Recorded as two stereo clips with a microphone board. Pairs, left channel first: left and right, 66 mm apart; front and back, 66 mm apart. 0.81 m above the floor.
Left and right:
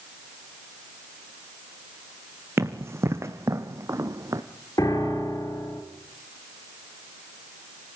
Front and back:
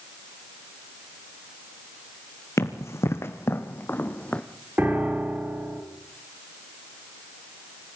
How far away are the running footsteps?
About 2.5 m.